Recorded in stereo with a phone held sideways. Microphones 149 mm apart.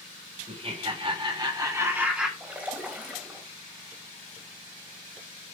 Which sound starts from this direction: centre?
A splash, at 2.4 s.